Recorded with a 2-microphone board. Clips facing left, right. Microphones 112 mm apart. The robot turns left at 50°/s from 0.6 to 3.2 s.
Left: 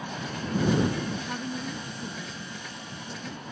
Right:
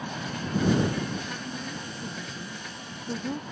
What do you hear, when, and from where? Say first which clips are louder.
1.3 s a woman speaking: left 3 dB; 40° left; by 3.4 s 55° right